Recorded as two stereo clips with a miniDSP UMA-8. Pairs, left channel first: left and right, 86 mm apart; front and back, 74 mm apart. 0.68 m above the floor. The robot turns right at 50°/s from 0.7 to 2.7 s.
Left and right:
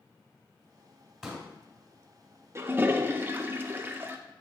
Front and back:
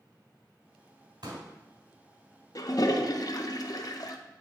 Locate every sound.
1.2 s a pop: 175° right, 2.5 m; by 1.5 s 165° right, 2.5 m
2.5 s a toilet flushing: 35° right, 0.6 m; by 4.2 s 25° right, 0.6 m